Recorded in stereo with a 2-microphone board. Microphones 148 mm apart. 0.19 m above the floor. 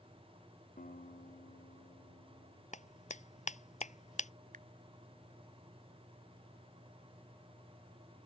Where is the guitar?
65° left (ahead or behind).